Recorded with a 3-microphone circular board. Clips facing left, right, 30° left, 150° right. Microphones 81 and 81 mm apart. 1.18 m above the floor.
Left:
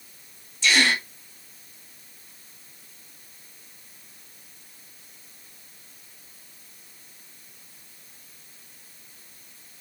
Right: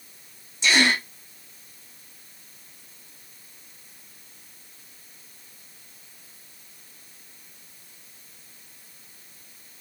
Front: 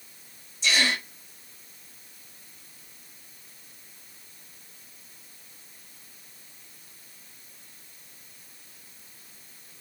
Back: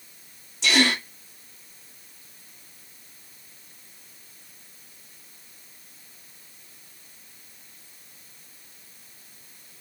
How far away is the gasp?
About 1.4 m.